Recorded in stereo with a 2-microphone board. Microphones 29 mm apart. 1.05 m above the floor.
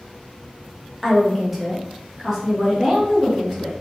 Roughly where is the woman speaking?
Centre.